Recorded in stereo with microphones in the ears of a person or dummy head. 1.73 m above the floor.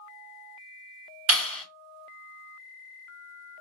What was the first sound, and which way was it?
A clap, 70° right (ahead or behind).